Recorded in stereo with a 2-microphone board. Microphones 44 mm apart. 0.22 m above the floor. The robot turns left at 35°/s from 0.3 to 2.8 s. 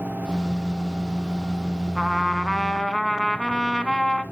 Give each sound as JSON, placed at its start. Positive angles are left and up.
{"t": 1.9, "sound": "a trumpet", "side_deg": -10, "distance_m": 1.1}